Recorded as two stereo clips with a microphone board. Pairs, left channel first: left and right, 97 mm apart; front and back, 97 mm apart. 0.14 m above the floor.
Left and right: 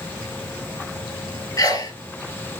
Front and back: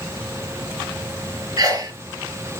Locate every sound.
1.6 s a sneeze: 135° left, 3 m